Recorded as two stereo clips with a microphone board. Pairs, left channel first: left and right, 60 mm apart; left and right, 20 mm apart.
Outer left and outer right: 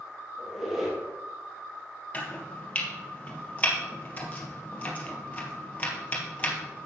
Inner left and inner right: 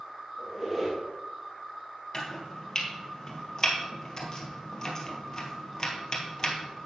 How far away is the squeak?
About 3 m.